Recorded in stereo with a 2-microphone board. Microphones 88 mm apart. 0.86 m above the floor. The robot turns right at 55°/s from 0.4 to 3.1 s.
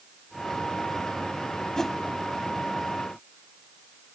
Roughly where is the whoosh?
Centre.